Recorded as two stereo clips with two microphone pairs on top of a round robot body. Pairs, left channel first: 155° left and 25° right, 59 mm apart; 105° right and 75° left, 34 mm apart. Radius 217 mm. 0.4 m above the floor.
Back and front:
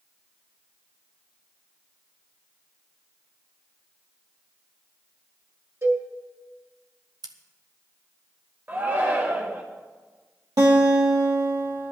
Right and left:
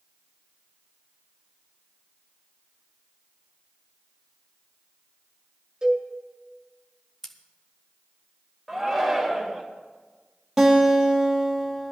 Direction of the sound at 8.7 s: 5° left.